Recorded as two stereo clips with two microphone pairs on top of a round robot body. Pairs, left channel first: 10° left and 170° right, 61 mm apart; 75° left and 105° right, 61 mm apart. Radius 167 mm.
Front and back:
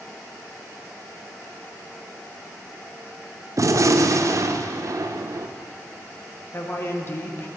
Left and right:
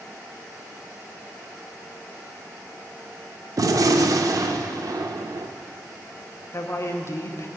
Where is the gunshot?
130° right, 0.6 m.